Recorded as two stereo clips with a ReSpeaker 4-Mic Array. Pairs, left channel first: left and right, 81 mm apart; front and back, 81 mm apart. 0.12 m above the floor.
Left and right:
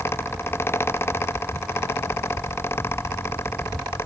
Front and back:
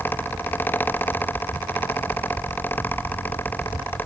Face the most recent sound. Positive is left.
No sound to turn to.